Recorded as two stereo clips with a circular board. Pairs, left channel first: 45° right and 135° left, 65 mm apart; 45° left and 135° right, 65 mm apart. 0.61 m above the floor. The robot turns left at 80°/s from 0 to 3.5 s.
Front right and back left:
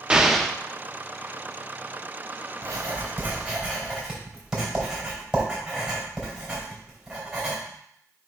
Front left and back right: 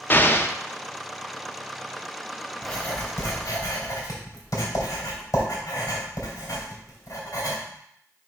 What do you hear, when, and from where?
0.1 s an explosion: 70° left, 0.6 m; by 0.6 s 30° left, 0.6 m
2.6 s writing: 130° left, 3 m; by 7.6 s 60° left, 3 m